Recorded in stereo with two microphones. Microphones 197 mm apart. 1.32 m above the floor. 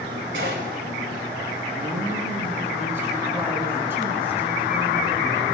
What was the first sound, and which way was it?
A gunshot, 85° right.